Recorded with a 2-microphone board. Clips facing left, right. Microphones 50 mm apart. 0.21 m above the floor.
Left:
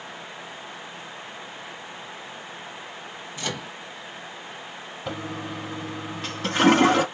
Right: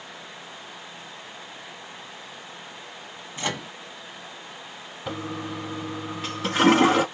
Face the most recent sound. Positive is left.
turn(degrees=-5)  # may be behind; listen again after turning